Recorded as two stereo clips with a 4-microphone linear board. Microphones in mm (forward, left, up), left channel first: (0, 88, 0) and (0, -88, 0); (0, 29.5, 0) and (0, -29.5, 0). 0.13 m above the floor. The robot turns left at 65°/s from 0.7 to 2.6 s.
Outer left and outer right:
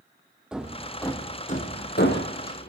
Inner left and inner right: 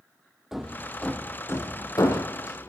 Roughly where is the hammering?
Centre.